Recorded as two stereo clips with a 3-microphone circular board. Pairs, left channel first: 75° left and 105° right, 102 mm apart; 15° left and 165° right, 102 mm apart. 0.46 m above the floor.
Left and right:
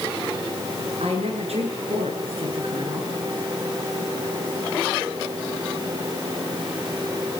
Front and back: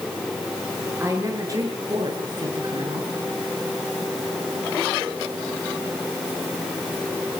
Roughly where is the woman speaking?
Right.